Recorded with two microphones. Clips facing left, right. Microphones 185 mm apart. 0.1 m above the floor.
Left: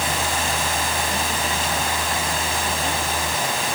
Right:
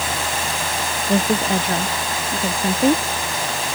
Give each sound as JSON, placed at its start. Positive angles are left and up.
{"t": 1.1, "sound": "a woman speaking", "side_deg": -60}